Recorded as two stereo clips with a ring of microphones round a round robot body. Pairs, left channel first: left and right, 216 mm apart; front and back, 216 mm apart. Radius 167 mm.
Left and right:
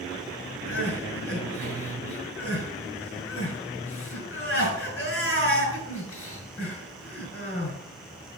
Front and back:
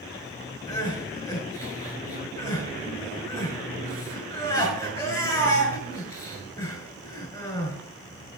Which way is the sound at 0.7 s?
75° left.